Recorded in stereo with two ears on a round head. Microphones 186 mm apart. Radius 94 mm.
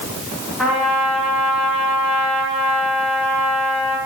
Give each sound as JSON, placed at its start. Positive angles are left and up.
{"t": 0.6, "sound": "a trumpet", "side_deg": 0, "distance_m": 6.0}